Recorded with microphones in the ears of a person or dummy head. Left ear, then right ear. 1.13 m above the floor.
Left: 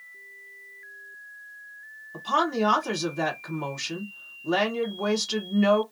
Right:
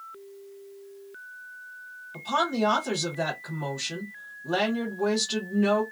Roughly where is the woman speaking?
Left.